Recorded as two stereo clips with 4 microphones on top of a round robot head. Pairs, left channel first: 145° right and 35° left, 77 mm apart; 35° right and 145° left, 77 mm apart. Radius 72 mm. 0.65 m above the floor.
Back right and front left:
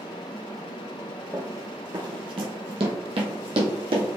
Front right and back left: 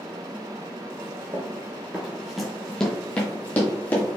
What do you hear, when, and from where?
1.3 s running footsteps: 100° left, 0.8 m; by 4.2 s 30° left, 1.9 m